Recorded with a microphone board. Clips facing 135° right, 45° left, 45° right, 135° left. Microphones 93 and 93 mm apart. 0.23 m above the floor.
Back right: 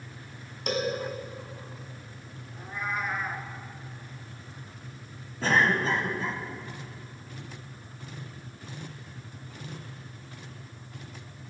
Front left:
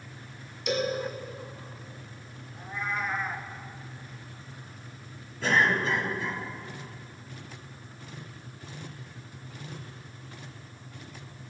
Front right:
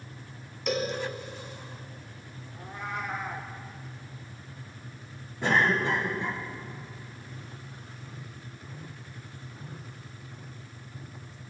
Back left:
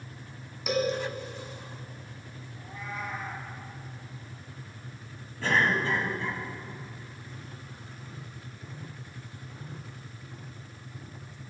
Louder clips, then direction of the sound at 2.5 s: Even, front right 3 dB; 50° right.